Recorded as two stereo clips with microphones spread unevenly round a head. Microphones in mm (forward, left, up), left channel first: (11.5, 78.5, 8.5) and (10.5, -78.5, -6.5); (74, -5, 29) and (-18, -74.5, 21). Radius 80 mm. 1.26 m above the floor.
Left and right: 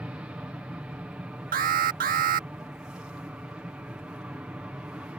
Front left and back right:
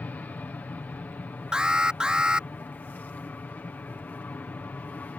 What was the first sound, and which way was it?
An aircraft, 20° right.